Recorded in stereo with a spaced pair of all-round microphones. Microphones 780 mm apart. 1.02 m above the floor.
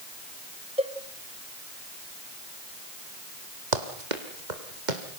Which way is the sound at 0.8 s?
10° right (ahead or behind).